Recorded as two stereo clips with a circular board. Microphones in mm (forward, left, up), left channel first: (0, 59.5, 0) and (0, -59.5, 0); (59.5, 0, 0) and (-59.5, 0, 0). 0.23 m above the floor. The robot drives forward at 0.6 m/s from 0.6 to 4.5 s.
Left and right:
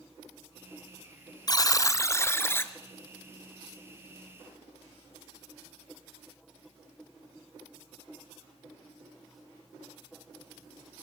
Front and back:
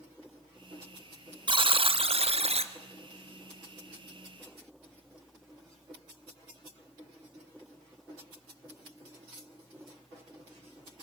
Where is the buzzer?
140° left, 0.9 m; by 2.7 s 160° left, 1.5 m.